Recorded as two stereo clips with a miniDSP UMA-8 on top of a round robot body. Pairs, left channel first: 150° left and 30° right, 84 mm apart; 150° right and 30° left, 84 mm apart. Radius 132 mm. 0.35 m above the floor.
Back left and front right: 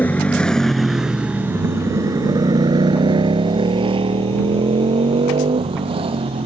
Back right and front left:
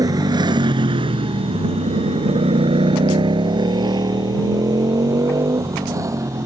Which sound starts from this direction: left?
A motorcycle, at 0.0 s.